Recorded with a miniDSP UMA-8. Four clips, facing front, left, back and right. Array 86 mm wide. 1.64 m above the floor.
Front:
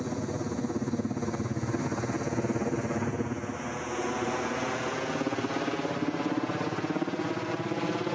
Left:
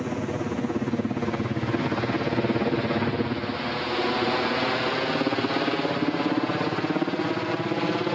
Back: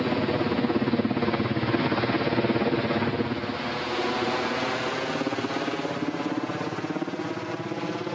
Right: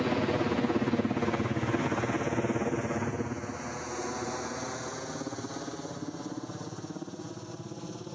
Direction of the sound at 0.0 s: 160° right.